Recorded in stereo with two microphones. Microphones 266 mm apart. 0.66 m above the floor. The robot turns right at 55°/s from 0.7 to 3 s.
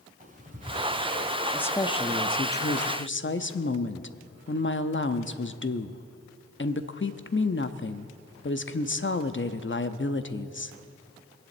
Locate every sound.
0.2 s ticking: 30° right (ahead or behind), 3 m; by 1.4 s 65° right (ahead or behind), 3 m
1.5 s a woman speaking: 5° left, 0.7 m; by 10.8 s 85° left, 0.7 m